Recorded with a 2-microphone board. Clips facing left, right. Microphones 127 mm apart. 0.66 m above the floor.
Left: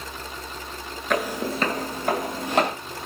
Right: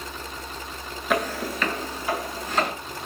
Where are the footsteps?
5° right (ahead or behind), 0.6 m; by 2.7 s 70° left (ahead or behind), 1.6 m.